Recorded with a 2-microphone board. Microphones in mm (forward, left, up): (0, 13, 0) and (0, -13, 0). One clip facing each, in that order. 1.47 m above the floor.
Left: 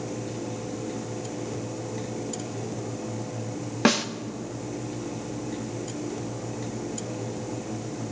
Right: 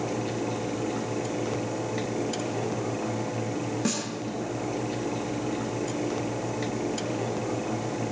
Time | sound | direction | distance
3.9 | a snare drum | 50° left (ahead or behind) | 0.7 m